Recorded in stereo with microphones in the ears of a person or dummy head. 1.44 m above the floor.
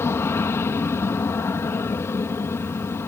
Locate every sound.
0.0 s an aircraft: 10° left (ahead or behind)